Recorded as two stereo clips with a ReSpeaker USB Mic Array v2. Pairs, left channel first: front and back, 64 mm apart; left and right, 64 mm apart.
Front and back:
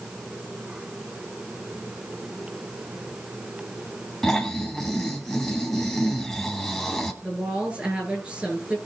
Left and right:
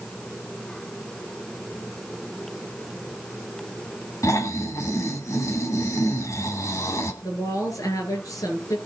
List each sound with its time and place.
4.2 s snoring: 85° left, 2.5 m
7.2 s a woman speaking: 110° left, 7.5 m